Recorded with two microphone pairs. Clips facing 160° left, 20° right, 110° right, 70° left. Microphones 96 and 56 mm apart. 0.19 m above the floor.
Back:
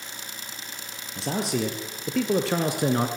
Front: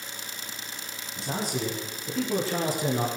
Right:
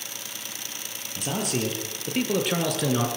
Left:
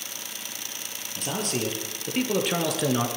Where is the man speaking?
165° left, 6 m; by 3.1 s 155° left, 3 m.